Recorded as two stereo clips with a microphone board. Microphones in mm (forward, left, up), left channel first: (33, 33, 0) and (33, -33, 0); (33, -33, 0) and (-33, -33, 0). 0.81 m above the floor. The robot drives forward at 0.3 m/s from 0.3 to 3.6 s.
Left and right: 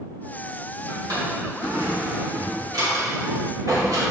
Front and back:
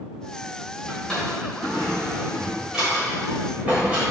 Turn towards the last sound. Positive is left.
turn(degrees=-110)